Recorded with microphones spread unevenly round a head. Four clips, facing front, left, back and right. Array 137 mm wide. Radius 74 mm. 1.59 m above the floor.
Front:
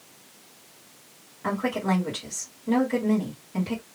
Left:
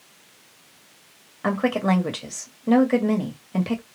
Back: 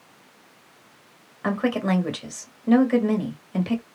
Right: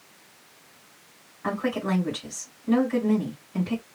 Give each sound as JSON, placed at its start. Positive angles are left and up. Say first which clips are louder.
{"t": 1.4, "sound": "a woman speaking", "louder": "left 5 dB, back 3 dB", "azimuth_deg": 105, "distance_m": 1.5}